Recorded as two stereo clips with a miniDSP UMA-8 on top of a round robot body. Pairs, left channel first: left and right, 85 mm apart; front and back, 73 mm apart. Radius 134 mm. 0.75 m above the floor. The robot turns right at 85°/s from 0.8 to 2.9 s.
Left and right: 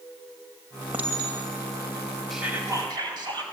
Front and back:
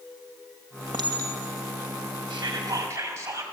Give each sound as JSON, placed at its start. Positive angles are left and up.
{"t": 0.9, "sound": "a clink", "azimuth_deg": -165, "distance_m": 2.5}
{"t": 2.3, "sound": "whispering", "azimuth_deg": 180, "distance_m": 5.0}